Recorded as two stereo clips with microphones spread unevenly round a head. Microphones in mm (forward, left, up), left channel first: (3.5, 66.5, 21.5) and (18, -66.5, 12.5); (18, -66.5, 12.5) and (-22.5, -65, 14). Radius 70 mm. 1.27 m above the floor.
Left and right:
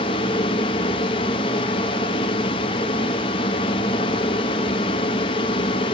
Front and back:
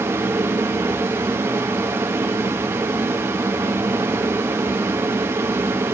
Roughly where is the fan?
Behind left.